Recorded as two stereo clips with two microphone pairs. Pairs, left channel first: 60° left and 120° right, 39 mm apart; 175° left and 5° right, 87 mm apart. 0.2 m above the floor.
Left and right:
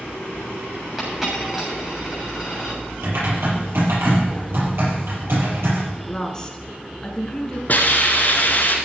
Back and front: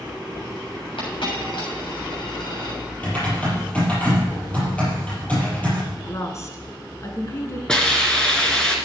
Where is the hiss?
95° left, 2.5 m.